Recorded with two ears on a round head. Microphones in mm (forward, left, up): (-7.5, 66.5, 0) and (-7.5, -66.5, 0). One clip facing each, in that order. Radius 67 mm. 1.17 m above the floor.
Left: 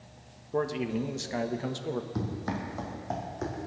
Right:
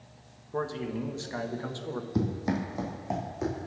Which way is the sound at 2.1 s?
30° right (ahead or behind).